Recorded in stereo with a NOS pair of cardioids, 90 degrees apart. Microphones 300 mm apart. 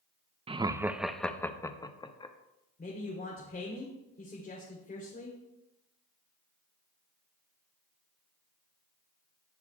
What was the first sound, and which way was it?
Laughter, 20° right.